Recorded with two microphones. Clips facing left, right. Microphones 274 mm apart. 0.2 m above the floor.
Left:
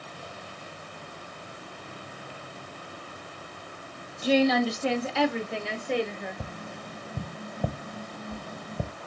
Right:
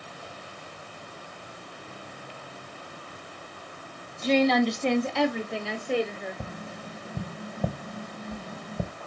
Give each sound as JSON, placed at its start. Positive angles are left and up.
{"t": 4.2, "sound": "a woman speaking", "side_deg": 10, "distance_m": 1.2}
{"t": 6.4, "sound": "tapping", "side_deg": -5, "distance_m": 0.5}